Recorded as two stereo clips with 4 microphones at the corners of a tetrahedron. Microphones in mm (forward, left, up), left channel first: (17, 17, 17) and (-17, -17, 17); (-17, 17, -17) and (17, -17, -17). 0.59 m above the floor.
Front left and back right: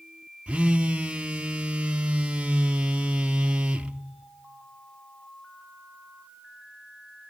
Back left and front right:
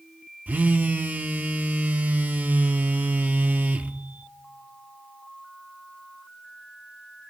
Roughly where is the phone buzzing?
Right.